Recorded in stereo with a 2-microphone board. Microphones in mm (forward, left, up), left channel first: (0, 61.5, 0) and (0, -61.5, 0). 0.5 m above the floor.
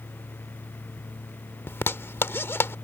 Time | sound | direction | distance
1.7 | a zipper | 20° left (ahead or behind) | ?